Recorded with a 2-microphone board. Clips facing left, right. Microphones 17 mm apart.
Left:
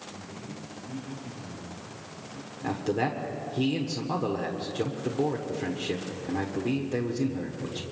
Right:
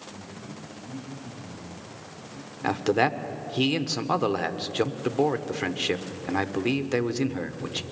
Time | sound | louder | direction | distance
0.1 | a man speaking | even | 30° right (ahead or behind) | 6 m
2.6 | a man speaking | right 5 dB | 55° right (ahead or behind) | 1.3 m